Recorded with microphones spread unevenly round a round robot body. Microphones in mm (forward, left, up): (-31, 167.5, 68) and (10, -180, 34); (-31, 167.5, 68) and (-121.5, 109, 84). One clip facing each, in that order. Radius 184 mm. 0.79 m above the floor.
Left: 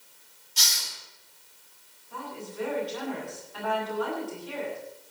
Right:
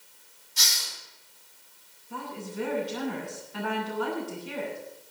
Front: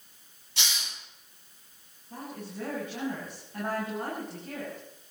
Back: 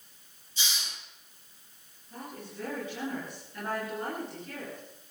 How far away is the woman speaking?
About 10 m.